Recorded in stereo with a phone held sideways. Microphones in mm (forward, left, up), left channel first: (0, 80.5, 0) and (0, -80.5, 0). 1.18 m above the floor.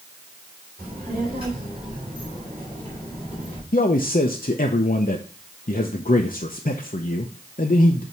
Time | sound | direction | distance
0.8 | a child speaking | 35° right (ahead or behind) | 3 m
3.7 | a man speaking | 60° left (ahead or behind) | 0.7 m